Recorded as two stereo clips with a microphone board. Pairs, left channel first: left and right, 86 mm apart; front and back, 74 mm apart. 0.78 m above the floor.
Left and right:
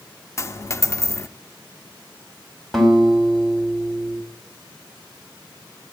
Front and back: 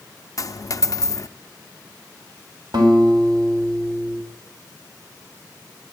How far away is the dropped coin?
About 0.5 m.